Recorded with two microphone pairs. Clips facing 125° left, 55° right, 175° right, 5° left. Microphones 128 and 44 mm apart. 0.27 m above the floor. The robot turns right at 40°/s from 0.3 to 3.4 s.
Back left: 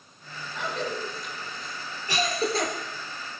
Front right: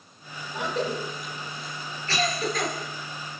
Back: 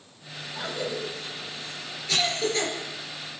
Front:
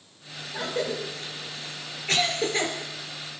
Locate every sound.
0.5 s a cough: 10° right, 4 m; by 2.7 s 75° left, 4 m